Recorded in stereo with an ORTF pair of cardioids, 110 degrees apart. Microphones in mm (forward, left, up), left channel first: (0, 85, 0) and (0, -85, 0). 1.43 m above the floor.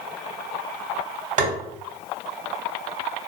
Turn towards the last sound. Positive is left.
turn(degrees=-50)